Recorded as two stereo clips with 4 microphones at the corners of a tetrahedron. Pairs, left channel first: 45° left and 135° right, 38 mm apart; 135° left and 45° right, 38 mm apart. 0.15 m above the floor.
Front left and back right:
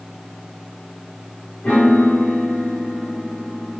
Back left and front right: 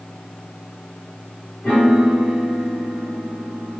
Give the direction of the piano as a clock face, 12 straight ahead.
8 o'clock.